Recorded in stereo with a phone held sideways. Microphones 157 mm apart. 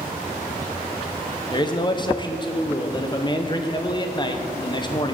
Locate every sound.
1.5 s a man speaking: 30° left (ahead or behind), 0.9 m